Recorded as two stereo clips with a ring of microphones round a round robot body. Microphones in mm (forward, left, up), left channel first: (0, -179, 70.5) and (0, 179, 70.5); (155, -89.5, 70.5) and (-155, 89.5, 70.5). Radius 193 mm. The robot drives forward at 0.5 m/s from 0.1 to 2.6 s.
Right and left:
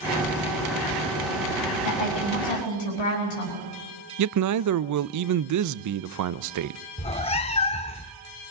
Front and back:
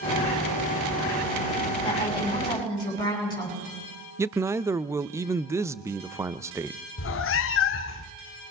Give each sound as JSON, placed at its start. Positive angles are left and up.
{"t": 1.8, "sound": "a woman speaking", "azimuth_deg": -110, "distance_m": 9.5}
{"t": 4.2, "sound": "a man speaking", "azimuth_deg": 70, "distance_m": 0.7}
{"t": 7.0, "sound": "a cat meowing", "azimuth_deg": -30, "distance_m": 0.5}